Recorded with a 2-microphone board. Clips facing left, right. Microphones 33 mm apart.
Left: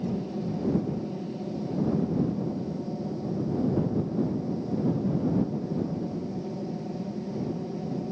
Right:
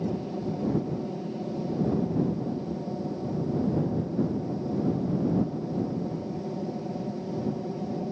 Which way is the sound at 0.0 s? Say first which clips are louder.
Even; 15° right (ahead or behind).